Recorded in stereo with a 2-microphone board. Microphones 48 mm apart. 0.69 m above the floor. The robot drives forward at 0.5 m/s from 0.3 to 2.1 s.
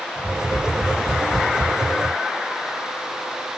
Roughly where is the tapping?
Centre.